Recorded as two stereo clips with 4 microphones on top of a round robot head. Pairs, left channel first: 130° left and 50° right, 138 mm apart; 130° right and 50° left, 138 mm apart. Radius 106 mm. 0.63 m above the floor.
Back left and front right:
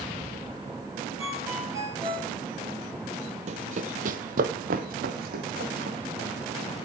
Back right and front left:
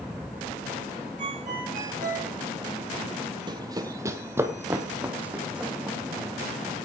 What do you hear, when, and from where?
1.2 s a ringtone: 15° left, 9.5 m
3.5 s running footsteps: 10° right, 1.3 m; by 6.8 s 35° right, 3.5 m